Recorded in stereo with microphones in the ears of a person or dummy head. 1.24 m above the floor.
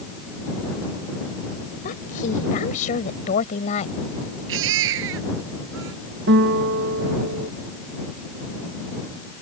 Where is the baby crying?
70° right (ahead or behind).